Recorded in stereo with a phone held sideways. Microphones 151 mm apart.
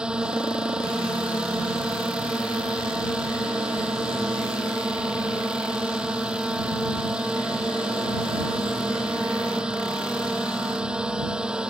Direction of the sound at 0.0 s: 5° right (ahead or behind).